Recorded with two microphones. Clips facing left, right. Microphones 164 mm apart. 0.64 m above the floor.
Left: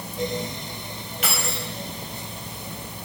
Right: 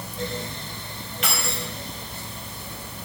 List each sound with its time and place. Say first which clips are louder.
1.2 s keys jangling: even; centre (ahead or behind), 3 m